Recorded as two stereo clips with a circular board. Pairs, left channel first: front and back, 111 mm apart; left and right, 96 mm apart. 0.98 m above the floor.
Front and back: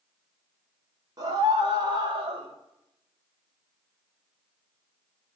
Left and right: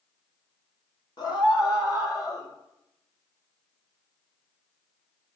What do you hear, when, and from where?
1.2 s a scream: 130° left, 4 m; by 2.5 s 140° left, 4.5 m